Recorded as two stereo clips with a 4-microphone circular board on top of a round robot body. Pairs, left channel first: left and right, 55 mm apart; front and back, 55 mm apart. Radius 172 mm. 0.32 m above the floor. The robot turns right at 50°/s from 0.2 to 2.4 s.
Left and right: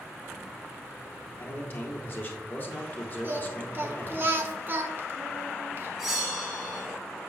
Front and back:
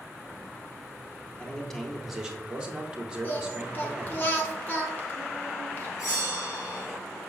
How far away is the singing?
About 1.0 m.